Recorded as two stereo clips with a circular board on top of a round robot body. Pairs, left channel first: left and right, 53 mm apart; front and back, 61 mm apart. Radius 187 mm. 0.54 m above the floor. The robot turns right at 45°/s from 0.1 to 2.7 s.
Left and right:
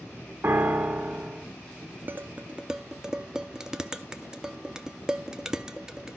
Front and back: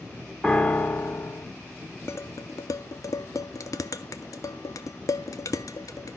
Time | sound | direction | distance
0.4 | a piano | 70° right | 1.2 m
2.1 | dishes clattering | 40° right | 0.7 m